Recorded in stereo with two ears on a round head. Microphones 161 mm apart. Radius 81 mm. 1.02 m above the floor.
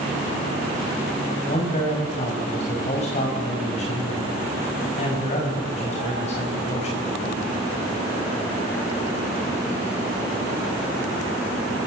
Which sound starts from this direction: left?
A man speaking, at 1.5 s.